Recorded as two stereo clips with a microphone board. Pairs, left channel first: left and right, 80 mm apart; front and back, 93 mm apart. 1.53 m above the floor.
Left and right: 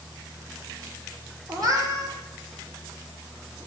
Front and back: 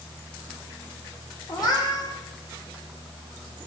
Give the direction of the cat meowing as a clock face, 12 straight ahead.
2 o'clock.